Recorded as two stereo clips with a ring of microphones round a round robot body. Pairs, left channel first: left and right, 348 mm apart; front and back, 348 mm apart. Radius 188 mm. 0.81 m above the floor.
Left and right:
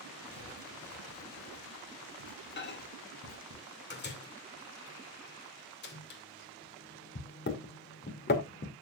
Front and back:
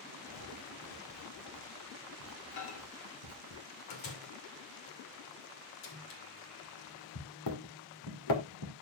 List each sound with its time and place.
0.3 s writing: 30° left, 4.5 m
2.6 s a microwave: 30° left, 2.5 m